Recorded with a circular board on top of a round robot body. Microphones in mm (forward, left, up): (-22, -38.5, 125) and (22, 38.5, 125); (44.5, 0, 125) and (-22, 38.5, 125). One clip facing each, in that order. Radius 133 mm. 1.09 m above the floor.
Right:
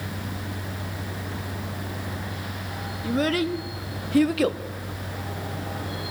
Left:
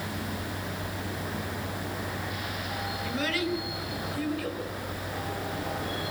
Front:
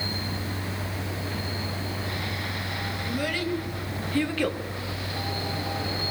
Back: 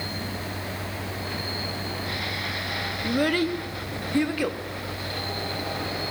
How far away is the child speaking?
About 1.6 m.